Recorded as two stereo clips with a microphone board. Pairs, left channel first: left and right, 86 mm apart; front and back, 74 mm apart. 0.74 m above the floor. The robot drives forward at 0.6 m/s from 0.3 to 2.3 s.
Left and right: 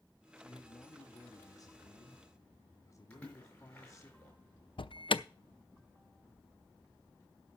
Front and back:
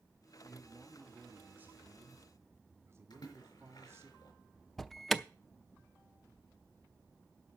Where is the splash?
15° left, 5 m.